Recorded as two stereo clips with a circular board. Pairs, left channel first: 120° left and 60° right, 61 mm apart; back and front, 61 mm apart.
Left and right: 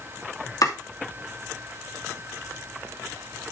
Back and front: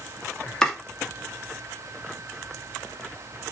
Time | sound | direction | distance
0.6 | chopping | 100° left | 2.5 m